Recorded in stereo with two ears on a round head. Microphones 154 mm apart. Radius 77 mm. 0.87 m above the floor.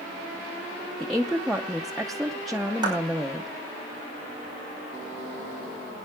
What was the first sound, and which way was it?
A woman speaking, centre (ahead or behind).